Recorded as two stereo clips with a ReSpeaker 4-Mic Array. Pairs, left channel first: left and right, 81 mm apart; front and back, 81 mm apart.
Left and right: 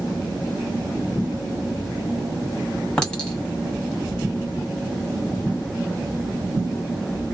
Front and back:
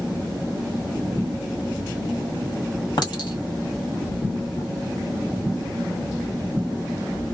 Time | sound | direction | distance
3.0 | a clink | 10° left | 1.5 m